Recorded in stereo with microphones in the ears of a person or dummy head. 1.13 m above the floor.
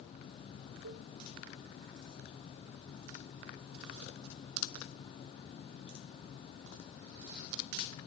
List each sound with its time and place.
0.8 s a cowbell: 65° right (ahead or behind), 1.1 m